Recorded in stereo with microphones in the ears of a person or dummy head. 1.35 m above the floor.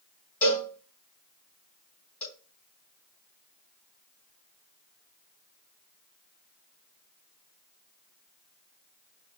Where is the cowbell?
10° left (ahead or behind), 3 m.